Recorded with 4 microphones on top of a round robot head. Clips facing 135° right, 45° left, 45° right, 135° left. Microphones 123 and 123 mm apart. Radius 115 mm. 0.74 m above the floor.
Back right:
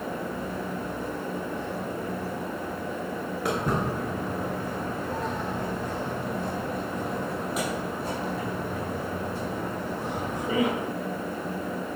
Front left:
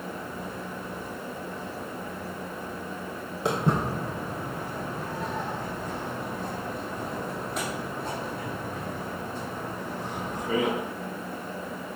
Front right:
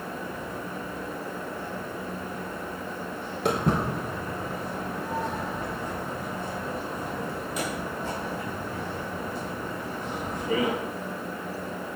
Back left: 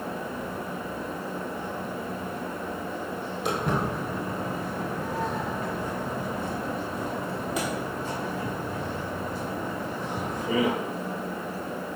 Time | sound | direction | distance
3.5 | footsteps | 15° right | 0.8 m